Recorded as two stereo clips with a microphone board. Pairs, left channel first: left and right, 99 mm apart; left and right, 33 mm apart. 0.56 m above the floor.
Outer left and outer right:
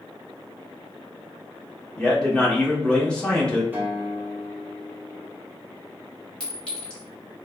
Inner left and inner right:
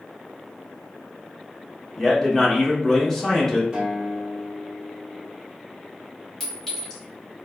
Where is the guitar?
20° right (ahead or behind), 1.2 m.